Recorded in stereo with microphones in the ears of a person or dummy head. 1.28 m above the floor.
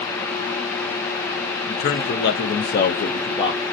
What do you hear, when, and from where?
1.7 s a man speaking: 40° left (ahead or behind), 0.7 m; by 3.6 s 20° left (ahead or behind), 0.7 m